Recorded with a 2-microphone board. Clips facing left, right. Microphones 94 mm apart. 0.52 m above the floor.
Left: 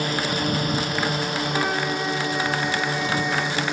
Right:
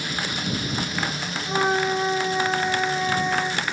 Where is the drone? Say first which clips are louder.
Left 5 dB; 50° left (ahead or behind); by 3.8 s 60° left (ahead or behind).